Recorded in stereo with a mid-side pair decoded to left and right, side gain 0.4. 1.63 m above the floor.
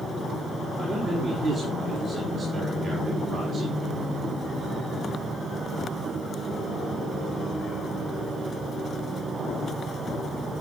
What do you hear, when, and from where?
0.8 s a man speaking: 55° right, 5.5 m